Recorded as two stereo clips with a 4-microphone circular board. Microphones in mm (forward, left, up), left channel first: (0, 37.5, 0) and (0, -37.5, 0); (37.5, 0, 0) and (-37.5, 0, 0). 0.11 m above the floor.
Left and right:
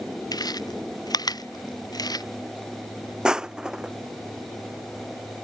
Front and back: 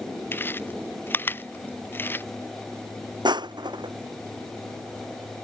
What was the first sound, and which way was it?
Chewing, 60° left.